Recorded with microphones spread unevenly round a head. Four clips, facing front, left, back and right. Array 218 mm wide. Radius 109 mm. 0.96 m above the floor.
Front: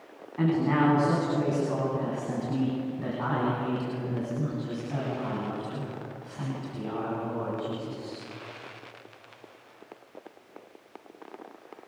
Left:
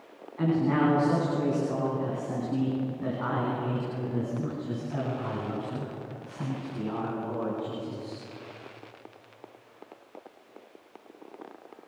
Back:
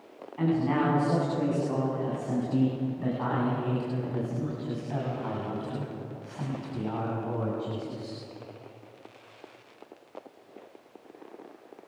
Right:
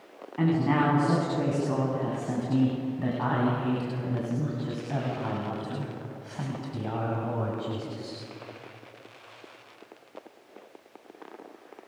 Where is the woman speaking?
70° right, 10 m; by 8.2 s 100° right, 7 m.